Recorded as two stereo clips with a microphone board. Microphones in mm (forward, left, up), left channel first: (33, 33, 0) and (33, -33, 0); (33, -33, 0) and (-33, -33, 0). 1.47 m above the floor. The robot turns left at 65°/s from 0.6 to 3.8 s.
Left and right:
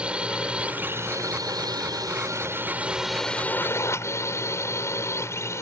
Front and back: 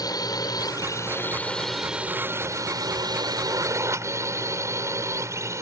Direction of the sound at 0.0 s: 15° right.